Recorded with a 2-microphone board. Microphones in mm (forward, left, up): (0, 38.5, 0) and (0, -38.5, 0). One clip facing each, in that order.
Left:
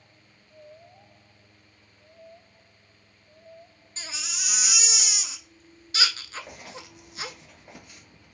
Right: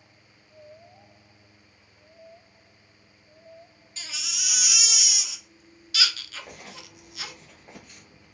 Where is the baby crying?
30° left (ahead or behind), 0.6 m.